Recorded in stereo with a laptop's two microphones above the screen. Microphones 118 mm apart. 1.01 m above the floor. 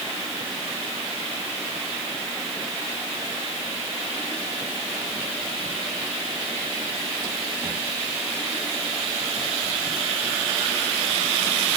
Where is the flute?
I don't hear a flute.